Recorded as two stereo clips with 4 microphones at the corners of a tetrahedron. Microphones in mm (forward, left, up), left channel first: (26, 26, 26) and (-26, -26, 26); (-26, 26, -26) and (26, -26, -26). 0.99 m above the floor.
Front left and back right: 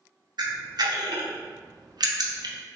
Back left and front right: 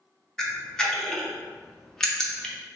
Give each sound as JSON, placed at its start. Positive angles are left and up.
{"t": 0.4, "sound": "a camera shutter", "azimuth_deg": -145, "distance_m": 0.5}